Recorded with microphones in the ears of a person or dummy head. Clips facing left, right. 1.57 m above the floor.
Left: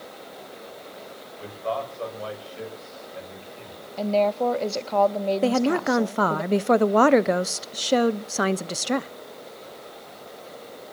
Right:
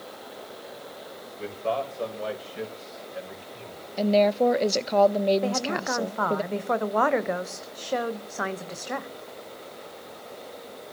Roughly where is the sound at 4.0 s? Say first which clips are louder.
Right 2 dB; centre.